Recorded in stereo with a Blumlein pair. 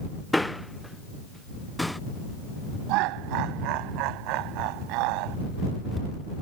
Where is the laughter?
40° right.